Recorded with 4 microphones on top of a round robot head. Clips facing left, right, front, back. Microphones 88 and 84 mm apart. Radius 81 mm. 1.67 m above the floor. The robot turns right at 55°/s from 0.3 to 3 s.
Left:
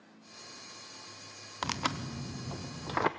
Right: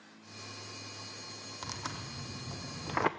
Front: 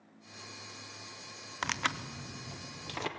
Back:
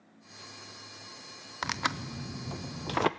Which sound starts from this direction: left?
Tearing paper, at 1.6 s.